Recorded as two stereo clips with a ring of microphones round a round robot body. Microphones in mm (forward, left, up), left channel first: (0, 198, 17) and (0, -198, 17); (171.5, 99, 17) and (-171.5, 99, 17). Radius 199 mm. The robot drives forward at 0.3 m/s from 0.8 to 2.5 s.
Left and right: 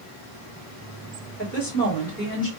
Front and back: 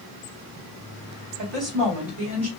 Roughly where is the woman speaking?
Behind left.